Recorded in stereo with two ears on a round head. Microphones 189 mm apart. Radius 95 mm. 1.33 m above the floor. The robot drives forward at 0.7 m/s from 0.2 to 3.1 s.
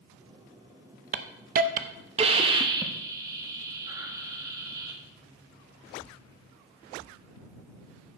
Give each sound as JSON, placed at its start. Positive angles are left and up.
{"t": 1.1, "sound": "a hiss", "side_deg": -40, "distance_m": 0.6}